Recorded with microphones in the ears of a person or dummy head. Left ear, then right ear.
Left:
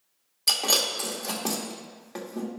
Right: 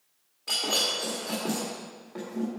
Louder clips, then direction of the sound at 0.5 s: Left 3 dB; 65° left (ahead or behind).